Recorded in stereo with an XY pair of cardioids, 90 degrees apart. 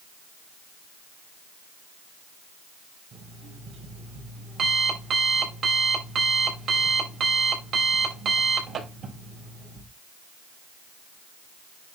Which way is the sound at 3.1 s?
60° right.